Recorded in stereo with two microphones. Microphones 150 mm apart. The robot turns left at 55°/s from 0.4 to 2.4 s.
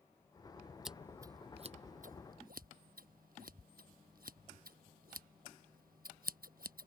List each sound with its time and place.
0.8 s scissors: centre (ahead or behind); by 6.9 s 75° right (ahead or behind)